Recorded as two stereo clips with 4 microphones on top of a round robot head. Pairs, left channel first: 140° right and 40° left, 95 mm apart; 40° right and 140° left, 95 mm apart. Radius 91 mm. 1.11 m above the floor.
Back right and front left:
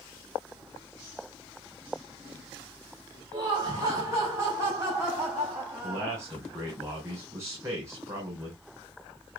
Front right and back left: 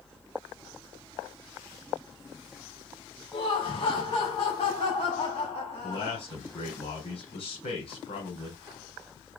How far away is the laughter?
About 4.5 m.